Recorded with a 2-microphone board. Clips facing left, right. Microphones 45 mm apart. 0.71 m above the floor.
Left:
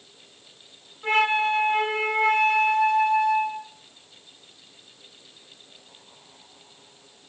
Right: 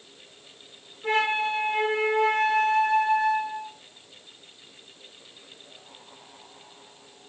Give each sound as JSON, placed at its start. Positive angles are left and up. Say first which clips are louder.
{"t": 1.0, "sound": "a flute", "louder": "left 3 dB", "side_deg": 40, "distance_m": 5.0}